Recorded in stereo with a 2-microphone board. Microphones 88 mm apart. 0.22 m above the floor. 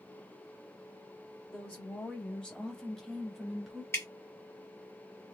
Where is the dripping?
30° left (ahead or behind), 1.5 m.